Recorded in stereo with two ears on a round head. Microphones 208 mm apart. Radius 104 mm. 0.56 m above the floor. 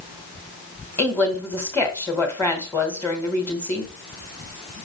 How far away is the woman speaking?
About 2 m.